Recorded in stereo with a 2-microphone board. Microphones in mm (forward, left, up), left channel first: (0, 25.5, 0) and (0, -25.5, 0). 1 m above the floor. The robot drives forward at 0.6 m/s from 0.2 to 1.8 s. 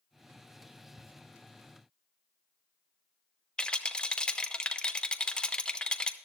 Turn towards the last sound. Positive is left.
turn(degrees=20)  # may be behind; listen again after turning